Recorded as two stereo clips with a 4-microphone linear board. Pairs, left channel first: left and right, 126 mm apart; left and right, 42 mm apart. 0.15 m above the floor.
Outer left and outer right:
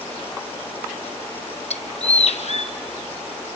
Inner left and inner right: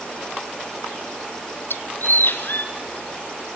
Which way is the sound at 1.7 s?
60° left (ahead or behind).